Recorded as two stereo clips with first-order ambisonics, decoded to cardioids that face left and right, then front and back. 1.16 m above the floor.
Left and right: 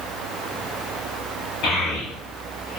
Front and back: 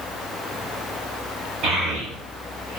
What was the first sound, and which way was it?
A child speaking, 140° left.